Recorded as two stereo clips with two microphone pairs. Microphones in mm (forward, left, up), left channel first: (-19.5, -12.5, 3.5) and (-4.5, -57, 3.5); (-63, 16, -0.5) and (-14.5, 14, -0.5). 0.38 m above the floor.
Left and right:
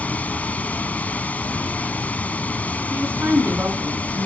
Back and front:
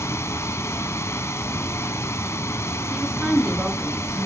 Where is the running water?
165° left, 1.1 m.